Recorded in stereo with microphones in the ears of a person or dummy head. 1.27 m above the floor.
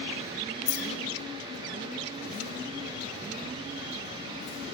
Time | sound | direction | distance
0.7 | keys jangling | 60° left (ahead or behind) | 0.7 m